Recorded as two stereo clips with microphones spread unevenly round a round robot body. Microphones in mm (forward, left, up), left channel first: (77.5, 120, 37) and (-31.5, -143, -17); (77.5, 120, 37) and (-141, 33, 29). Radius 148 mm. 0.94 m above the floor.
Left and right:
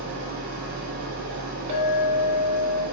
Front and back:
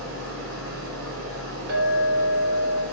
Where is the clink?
Straight behind, 2.0 m.